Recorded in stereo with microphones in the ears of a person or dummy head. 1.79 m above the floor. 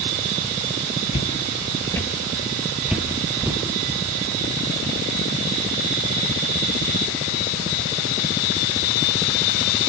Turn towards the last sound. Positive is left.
turn(degrees=-15)  # may be behind; listen again after turning